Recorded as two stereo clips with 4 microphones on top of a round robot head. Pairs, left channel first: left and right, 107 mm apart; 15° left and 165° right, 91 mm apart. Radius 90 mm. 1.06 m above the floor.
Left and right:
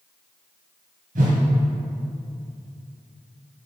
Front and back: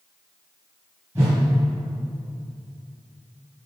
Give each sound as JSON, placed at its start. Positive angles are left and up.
{"t": 1.1, "sound": "a whoosh", "azimuth_deg": -95, "distance_m": 2.0}